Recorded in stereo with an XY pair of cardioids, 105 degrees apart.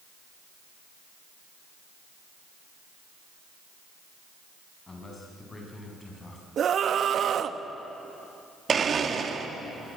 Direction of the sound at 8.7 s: 40° right.